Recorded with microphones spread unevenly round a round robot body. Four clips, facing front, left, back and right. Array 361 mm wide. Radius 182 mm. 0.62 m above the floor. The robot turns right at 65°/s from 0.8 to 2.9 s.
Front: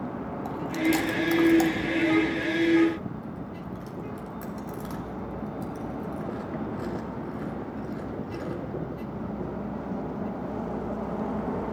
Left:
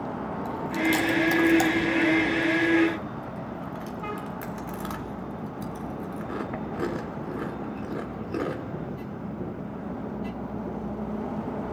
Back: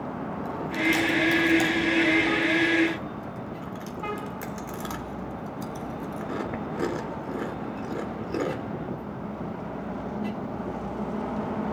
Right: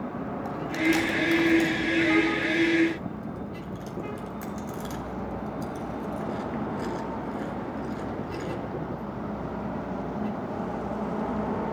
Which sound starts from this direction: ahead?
Chewing, at 0.5 s.